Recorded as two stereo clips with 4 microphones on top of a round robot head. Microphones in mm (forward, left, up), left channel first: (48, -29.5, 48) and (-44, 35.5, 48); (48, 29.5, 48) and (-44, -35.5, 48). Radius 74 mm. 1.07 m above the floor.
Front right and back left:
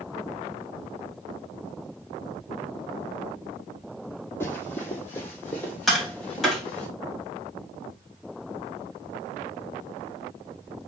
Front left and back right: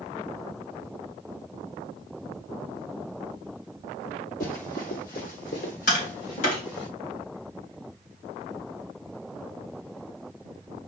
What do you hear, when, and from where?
4.4 s running footsteps: 30° left, 1.6 m; by 6.9 s 40° left, 4 m
5.9 s tapping: 55° left, 3 m